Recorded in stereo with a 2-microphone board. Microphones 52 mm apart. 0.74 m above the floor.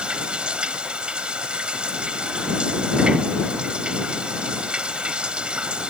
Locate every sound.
0.0 s running water: 20° right (ahead or behind)